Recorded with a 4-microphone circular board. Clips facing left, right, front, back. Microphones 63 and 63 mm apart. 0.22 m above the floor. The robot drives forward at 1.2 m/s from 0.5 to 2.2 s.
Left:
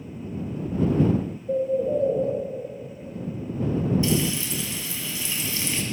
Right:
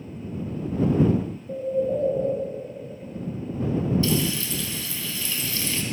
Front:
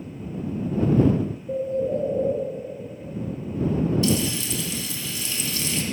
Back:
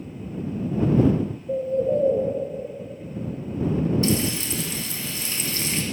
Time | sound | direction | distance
1.5 | a bird | 85° left | 2 m
4.0 | frying | 150° left | 1.5 m